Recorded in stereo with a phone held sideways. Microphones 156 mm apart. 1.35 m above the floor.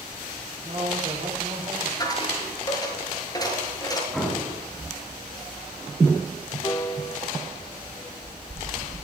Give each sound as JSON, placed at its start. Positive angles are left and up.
{"t": 0.6, "sound": "a man speaking", "side_deg": -40, "distance_m": 6.0}
{"t": 2.0, "sound": "a dropped coin", "side_deg": 25, "distance_m": 6.5}
{"t": 4.1, "sound": "an explosion", "side_deg": 0, "distance_m": 7.5}
{"t": 6.6, "sound": "a piano", "side_deg": 30, "distance_m": 1.3}